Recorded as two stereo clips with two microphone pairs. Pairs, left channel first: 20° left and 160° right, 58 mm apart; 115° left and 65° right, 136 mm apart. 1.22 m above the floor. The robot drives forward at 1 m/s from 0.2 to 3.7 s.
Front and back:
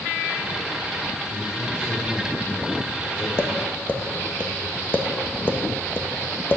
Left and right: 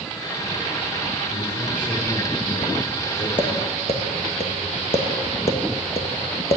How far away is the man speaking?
About 5 m.